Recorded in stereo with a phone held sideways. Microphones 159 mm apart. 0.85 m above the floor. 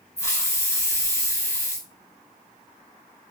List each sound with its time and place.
0.2 s a hiss: 20° left (ahead or behind), 2 m